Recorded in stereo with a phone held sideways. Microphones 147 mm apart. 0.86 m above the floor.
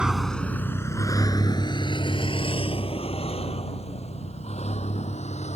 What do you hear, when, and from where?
0.0 s a vehicle: 5° right (ahead or behind); by 5.6 s 50° left (ahead or behind)